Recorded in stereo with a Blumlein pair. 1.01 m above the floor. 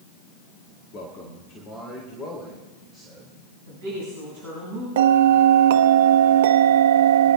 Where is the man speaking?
35° left, 2 m; by 3.4 s 15° left, 5 m.